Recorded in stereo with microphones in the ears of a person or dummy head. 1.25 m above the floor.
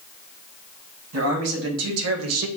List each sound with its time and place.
1.1 s a man speaking: 90° right, 1.6 m; by 2.5 s 85° right, 0.9 m